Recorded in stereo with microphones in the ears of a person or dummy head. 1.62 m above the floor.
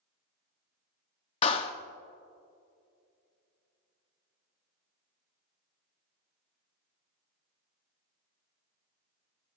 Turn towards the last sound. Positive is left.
turn(degrees=30)  # may be behind; listen again after turning